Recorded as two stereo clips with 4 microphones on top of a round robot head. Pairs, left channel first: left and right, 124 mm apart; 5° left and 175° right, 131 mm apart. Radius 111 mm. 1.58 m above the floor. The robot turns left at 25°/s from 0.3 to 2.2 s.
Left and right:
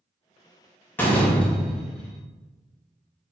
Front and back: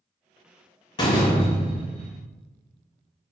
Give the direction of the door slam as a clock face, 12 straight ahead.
11 o'clock.